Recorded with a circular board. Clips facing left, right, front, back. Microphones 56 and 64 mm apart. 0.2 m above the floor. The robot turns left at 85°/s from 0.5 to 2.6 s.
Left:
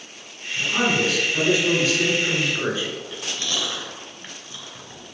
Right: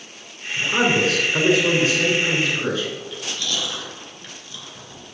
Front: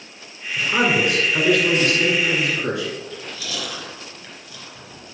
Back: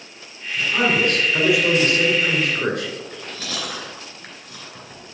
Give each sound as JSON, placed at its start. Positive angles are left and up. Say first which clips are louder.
{"t": 0.6, "sound": "a man speaking", "louder": "right 2 dB, front 1 dB", "azimuth_deg": -25, "distance_m": 3.0}
{"t": 3.0, "sound": "chewing", "louder": "right 1 dB, even", "azimuth_deg": 145, "distance_m": 2.5}